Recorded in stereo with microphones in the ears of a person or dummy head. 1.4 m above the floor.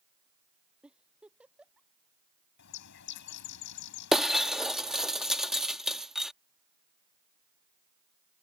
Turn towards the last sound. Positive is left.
turn(degrees=-5)  # may be behind; listen again after turning